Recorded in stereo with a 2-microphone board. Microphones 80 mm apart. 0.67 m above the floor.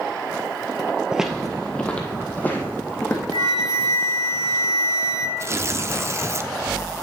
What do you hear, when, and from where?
1.1 s footsteps: 10° right (ahead or behind), 0.7 m; by 3.2 s 25° left (ahead or behind), 2 m
3.3 s a flute: 70° right (ahead or behind), 1.5 m
5.4 s tearing paper: 35° right (ahead or behind), 0.6 m